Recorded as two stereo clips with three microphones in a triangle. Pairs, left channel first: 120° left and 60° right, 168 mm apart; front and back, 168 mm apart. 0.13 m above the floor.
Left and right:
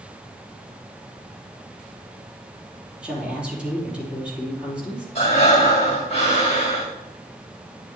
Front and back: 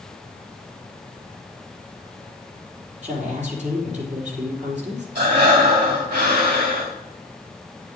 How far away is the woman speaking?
About 4 m.